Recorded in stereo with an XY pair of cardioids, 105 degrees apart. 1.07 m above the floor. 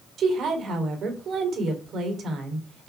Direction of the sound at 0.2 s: 60° right.